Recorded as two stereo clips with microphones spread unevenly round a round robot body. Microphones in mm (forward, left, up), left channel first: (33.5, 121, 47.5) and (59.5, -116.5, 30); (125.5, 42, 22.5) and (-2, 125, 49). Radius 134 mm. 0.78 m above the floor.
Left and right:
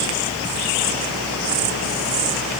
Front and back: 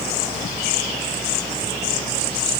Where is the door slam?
No door slam in this recording.